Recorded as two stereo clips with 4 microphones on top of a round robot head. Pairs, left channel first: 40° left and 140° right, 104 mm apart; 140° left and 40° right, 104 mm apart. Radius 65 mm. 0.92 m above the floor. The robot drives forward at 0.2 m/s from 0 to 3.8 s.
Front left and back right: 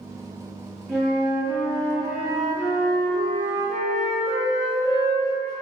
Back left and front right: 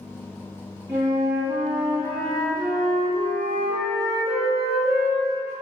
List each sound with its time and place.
0.9 s a flute: 50° right, 0.6 m; by 5.5 s 160° right, 0.7 m